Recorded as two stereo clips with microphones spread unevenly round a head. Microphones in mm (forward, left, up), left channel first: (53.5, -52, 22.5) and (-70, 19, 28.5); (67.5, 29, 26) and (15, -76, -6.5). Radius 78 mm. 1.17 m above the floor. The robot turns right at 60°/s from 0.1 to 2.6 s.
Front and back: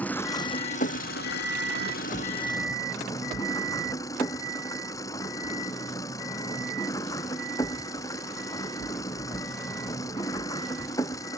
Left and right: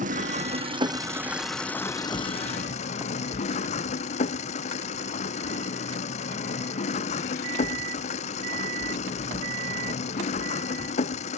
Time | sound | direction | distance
0.0 | an engine running | 110° right | ?